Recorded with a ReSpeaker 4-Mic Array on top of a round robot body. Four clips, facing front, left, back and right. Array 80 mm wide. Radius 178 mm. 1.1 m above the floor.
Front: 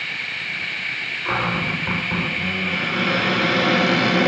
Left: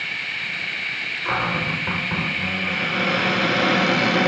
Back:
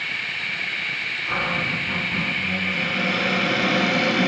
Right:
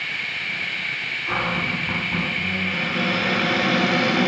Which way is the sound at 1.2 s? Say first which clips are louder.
Left 1 dB, front 3 dB; 55° left.